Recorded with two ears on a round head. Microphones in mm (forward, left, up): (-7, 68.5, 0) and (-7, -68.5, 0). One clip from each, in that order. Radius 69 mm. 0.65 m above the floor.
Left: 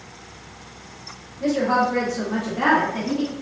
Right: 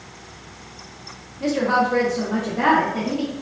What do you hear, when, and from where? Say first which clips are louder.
1.4 s a woman speaking: even; 25° right (ahead or behind), 0.7 m; by 3.3 s 20° left (ahead or behind), 1.1 m